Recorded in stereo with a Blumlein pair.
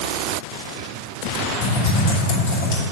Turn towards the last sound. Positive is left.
turn(degrees=50)